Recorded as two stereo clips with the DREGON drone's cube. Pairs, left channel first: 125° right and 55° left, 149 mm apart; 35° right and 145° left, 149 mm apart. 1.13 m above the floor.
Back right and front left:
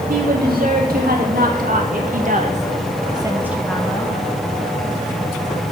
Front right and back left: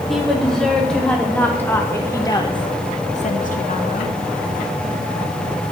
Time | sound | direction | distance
0.1 | a woman speaking | 55° left | 2 m